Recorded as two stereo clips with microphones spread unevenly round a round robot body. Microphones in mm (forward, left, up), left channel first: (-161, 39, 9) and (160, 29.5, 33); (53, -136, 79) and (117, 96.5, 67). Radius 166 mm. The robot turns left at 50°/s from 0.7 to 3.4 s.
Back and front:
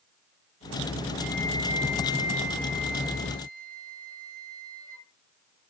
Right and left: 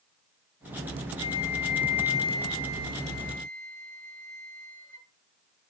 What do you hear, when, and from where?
1.2 s a flute: 80° right, 9 m; by 5.0 s 170° left, 9 m